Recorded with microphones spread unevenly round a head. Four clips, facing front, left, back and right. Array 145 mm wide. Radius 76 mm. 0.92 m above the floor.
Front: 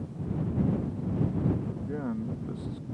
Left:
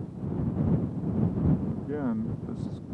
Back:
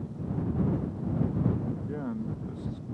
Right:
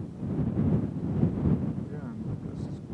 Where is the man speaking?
90° left; by 2.9 s 55° left.